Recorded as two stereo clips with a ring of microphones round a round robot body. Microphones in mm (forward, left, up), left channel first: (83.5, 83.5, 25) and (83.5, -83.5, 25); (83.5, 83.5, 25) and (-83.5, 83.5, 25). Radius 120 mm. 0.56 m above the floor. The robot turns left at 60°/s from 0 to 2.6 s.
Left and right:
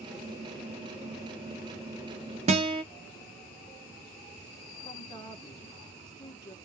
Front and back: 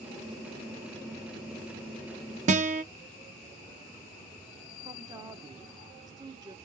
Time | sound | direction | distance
2.5 | a guitar | 140° right | 0.5 m
4.8 | a woman speaking | 135° left | 1.1 m